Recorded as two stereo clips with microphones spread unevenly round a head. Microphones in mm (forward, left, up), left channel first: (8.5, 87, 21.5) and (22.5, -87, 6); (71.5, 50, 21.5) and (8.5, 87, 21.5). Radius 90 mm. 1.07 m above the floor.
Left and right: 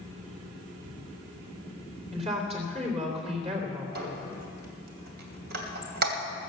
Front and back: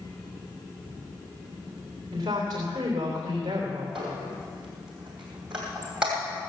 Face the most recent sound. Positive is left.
turn(degrees=-125)